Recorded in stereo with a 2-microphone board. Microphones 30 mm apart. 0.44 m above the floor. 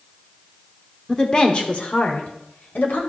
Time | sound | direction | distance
1.1 | a woman speaking | 15° left (ahead or behind) | 1.0 m